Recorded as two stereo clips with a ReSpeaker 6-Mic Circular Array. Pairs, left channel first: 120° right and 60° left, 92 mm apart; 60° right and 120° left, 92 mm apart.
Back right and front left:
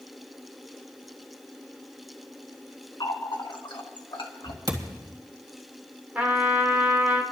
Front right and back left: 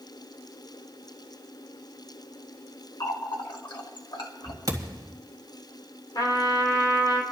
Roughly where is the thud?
Left.